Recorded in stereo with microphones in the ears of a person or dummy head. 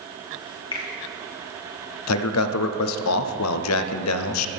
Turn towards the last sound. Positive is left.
turn(degrees=85)